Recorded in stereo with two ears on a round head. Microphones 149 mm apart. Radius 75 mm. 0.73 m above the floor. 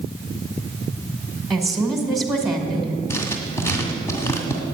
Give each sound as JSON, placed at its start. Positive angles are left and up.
{"t": 1.5, "sound": "a woman speaking", "side_deg": 0, "distance_m": 2.5}
{"t": 3.1, "sound": "writing", "side_deg": 15, "distance_m": 2.0}